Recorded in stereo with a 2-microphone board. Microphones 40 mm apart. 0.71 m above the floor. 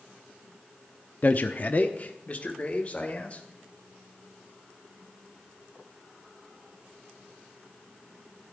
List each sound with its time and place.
1.2 s a man speaking: 45° left (ahead or behind), 0.6 m; by 3.4 s 30° left (ahead or behind), 2.5 m